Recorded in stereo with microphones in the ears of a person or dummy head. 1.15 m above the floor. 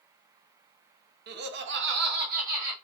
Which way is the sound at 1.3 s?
50° right (ahead or behind).